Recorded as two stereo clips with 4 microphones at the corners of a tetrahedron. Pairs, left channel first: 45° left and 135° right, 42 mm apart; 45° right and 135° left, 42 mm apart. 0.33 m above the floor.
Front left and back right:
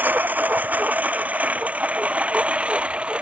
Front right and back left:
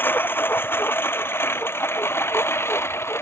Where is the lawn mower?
90° right; by 3.2 s 70° right.